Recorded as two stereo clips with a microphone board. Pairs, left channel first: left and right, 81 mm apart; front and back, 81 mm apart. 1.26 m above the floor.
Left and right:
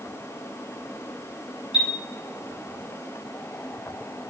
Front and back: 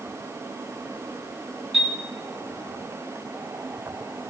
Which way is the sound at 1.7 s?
90° left.